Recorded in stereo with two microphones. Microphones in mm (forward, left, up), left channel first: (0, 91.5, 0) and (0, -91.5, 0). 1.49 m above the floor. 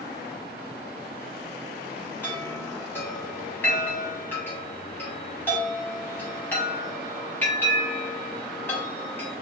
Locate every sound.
2.2 s a chime: 10° left (ahead or behind), 1.0 m